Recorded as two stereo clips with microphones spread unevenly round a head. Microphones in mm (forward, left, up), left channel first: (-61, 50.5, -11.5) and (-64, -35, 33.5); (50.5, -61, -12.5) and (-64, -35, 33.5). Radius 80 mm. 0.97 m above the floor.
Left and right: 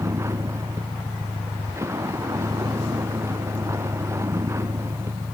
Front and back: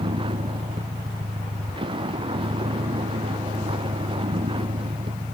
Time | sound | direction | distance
0.0 | a vehicle | 150° right | ?